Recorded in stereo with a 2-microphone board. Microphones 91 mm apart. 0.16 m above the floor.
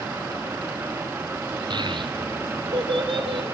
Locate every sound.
1.7 s a child speaking: 55° right (ahead or behind), 1.5 m; by 3.5 s 70° right (ahead or behind), 3 m